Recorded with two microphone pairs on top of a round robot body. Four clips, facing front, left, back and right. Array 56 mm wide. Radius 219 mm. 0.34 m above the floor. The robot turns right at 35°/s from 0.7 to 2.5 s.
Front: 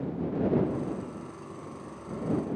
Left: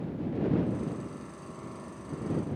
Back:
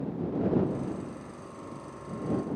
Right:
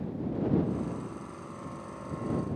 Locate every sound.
Only background noise.